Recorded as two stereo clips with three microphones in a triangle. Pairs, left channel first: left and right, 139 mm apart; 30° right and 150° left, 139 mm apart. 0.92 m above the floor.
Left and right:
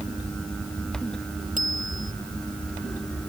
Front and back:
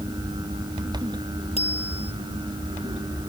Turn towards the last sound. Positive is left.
turn(degrees=-70)